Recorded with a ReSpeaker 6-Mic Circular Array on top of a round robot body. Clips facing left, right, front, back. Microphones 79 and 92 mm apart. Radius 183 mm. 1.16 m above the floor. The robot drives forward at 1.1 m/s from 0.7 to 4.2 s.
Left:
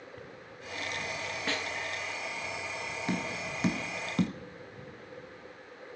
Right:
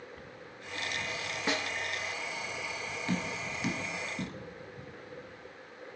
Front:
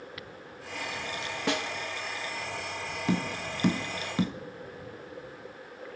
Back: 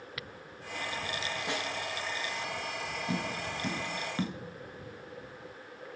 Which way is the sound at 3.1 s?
20° left.